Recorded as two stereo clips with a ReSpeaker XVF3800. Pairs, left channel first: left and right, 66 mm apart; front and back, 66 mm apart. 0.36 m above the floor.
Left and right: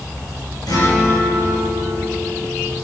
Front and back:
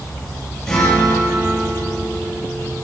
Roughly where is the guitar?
Left.